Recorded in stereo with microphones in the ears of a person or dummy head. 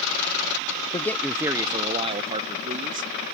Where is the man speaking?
25° left (ahead or behind); by 3.2 s 40° right (ahead or behind).